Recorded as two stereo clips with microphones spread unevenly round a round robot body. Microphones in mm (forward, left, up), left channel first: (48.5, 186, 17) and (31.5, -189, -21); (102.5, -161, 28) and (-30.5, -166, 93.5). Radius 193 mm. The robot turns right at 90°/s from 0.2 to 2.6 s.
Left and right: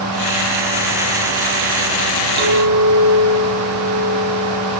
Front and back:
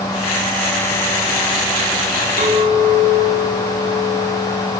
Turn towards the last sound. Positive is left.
turn(degrees=-140)